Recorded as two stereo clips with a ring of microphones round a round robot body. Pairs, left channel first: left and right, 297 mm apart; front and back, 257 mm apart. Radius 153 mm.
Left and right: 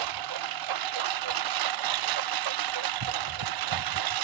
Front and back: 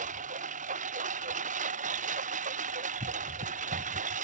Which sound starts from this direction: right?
A lawn mower, at 0.0 s.